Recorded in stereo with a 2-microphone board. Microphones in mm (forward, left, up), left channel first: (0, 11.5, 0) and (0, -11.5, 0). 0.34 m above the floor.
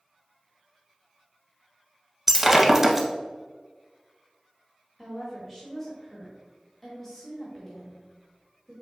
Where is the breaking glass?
15° right (ahead or behind), 0.6 m.